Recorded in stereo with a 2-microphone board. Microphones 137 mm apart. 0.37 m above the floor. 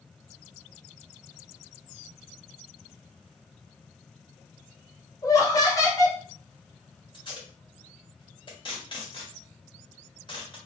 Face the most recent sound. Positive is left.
turn(degrees=35)  # may be behind; listen again after turning